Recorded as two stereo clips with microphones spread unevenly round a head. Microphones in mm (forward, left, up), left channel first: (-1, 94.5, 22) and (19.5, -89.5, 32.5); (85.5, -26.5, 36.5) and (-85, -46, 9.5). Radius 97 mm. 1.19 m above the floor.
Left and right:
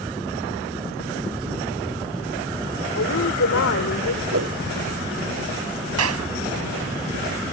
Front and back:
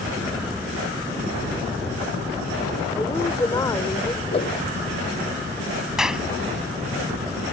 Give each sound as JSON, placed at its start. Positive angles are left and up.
{"t": 3.0, "sound": "a woman speaking", "azimuth_deg": 80}
{"t": 4.3, "sound": "a whoosh", "azimuth_deg": -50}
{"t": 6.0, "sound": "a clap", "azimuth_deg": -85}